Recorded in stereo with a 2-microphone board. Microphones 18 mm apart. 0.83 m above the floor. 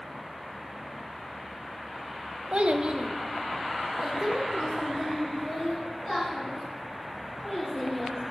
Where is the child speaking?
85° right, 0.5 m; by 8.2 s centre (ahead or behind), 3.5 m.